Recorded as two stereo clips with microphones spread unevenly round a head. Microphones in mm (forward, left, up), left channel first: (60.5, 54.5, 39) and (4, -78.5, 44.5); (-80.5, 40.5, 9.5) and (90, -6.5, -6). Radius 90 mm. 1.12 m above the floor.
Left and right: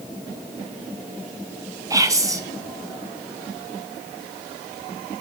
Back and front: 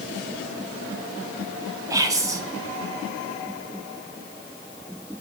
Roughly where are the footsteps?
No footsteps in this recording.